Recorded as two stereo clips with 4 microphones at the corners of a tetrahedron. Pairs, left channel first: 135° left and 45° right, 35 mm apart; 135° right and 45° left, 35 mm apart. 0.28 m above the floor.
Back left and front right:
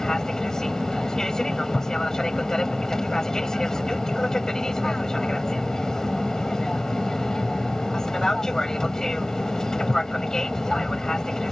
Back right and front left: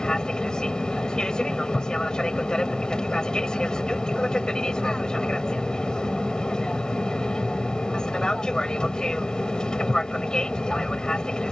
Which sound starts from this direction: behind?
An aircraft, at 0.0 s.